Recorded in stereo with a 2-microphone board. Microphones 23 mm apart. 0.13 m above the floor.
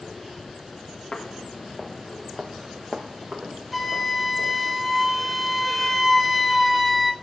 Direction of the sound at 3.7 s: Centre (ahead or behind).